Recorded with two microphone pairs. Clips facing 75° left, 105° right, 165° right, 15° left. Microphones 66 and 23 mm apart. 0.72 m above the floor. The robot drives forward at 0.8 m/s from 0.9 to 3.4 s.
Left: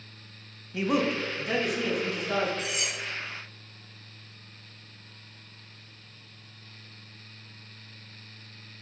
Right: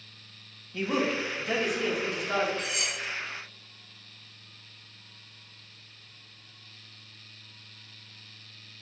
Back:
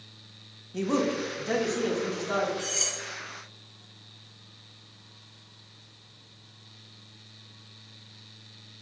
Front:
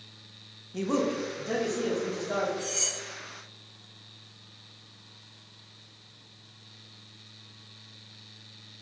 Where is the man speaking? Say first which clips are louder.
Left 2 dB, back 1 dB; 105° left, 0.6 m; by 2.5 s 170° left, 1.4 m.